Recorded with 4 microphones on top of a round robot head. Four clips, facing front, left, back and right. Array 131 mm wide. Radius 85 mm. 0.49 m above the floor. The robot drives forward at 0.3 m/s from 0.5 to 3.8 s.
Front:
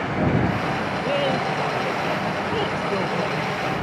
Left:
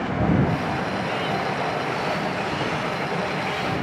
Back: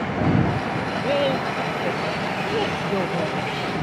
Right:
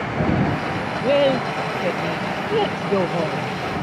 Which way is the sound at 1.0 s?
100° right.